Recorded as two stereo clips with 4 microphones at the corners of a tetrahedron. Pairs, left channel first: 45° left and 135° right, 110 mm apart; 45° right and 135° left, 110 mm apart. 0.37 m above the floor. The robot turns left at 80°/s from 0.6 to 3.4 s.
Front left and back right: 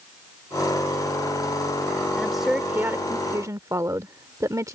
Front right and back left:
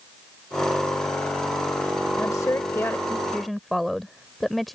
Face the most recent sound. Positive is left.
turn(degrees=-135)